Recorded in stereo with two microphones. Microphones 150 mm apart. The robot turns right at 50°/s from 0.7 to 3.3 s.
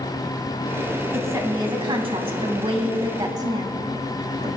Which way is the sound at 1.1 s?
155° right.